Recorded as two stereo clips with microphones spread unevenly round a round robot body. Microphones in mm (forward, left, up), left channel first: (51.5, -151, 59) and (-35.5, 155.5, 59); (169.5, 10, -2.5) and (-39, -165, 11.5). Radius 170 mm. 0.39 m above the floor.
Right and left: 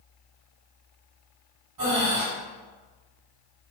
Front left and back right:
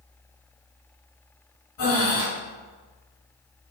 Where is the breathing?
70° left, 1.0 m.